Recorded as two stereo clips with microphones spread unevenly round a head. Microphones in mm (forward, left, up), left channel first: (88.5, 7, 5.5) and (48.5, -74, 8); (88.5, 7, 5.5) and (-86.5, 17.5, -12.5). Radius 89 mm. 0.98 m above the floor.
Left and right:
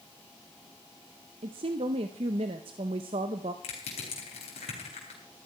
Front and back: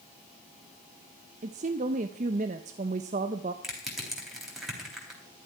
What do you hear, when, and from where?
1.4 s a woman speaking: 140° right, 0.6 m
3.6 s crushing: 85° left, 3.5 m